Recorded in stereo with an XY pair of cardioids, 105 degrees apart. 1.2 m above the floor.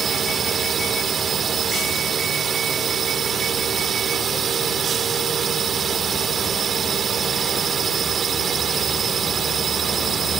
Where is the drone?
50° right.